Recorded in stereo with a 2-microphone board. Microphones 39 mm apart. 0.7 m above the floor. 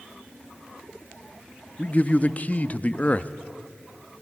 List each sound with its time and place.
1.8 s a man speaking: 35° left (ahead or behind), 0.7 m